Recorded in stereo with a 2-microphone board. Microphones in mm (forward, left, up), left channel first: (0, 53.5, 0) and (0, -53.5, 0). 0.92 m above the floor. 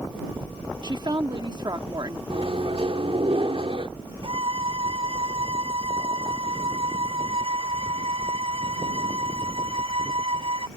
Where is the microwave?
65° right (ahead or behind).